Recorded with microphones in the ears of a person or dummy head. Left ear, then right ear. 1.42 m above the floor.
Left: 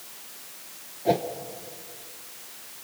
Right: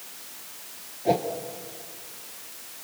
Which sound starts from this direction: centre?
A whoosh, at 1.1 s.